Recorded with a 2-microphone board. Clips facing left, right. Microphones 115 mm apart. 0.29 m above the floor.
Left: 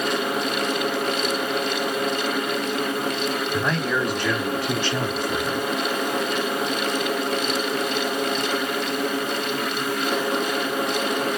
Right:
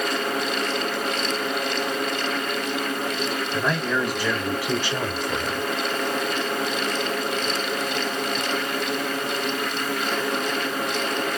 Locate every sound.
3.5 s a man speaking: 5° left (ahead or behind), 2.5 m; by 5.7 s 30° right (ahead or behind), 1.5 m